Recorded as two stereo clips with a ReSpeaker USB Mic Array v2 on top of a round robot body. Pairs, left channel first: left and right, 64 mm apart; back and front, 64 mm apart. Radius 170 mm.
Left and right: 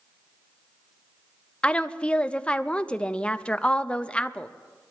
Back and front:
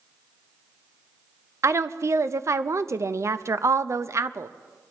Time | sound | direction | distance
1.6 | a woman speaking | 20° left | 0.7 m